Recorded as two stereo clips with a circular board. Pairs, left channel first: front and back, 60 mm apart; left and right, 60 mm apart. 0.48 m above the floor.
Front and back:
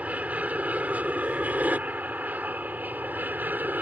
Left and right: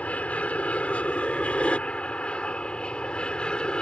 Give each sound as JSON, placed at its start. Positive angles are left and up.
{"t": 0.0, "sound": "an aircraft", "azimuth_deg": 135}